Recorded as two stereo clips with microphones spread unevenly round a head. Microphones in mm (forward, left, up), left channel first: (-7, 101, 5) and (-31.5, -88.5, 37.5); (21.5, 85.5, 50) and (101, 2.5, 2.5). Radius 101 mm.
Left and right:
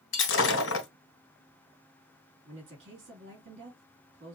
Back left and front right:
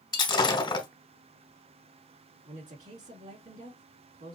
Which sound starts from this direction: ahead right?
A woman speaking, at 2.5 s.